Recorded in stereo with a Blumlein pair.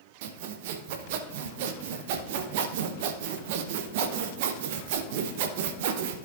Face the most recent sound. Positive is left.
turn(degrees=-50)